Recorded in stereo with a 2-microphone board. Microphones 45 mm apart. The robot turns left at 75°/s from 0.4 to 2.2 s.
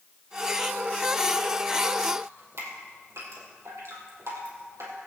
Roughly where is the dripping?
Right.